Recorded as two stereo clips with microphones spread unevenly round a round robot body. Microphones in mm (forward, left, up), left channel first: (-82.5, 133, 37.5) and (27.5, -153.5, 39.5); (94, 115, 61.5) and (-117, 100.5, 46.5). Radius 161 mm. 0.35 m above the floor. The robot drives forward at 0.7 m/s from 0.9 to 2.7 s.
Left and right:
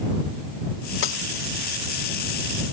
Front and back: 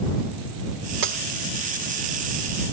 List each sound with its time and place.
1.0 s breaking glass: 160° left